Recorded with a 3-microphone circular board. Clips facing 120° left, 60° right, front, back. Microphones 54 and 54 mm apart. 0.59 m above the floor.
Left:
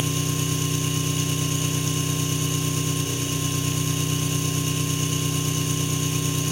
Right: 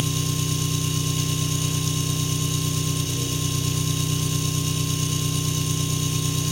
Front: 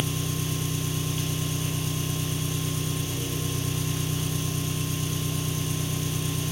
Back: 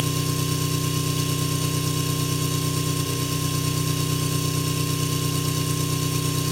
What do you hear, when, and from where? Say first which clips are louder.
0.0 s an engine running: left 1 dB, back 4 dB; straight behind, 3 m